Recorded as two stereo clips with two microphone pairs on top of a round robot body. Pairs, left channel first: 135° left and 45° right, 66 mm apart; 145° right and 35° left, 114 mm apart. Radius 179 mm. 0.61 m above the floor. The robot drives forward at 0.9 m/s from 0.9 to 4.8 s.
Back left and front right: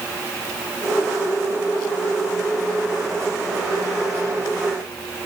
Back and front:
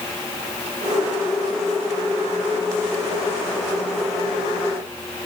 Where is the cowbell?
No cowbell in this recording.